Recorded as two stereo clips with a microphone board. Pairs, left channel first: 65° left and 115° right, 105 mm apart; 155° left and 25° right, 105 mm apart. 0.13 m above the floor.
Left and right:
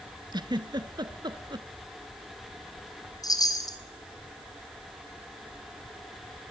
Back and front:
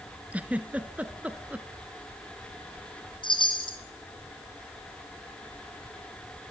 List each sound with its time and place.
0.3 s a giggle: 95° right, 1.0 m
3.2 s a chime: 120° left, 2 m